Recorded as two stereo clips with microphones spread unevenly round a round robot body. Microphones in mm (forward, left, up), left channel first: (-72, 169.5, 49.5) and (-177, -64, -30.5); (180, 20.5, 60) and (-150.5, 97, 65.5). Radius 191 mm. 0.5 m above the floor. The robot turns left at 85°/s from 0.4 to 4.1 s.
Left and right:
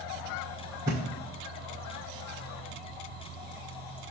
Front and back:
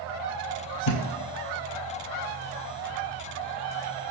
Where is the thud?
20° right, 0.9 m; by 1.0 s 35° right, 0.9 m.